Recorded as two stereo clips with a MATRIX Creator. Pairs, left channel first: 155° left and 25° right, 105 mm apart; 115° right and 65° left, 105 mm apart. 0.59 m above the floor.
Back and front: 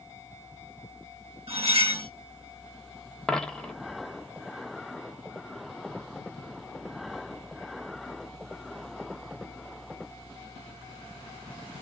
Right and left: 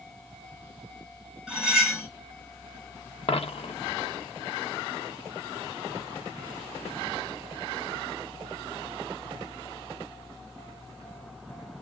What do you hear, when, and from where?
1.5 s cutlery clinking: 15° right, 1.4 m
3.3 s a dropped coin: 120° right, 0.5 m